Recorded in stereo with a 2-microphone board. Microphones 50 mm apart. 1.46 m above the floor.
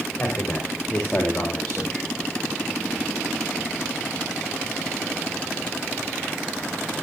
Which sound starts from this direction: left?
A man speaking, at 0.2 s.